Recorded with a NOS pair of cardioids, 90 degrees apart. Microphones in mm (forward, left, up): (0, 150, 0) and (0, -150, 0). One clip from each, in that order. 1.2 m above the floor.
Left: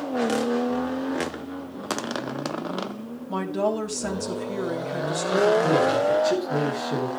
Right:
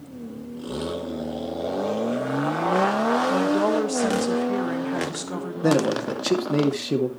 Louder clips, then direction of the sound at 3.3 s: Right 5 dB; 10° right.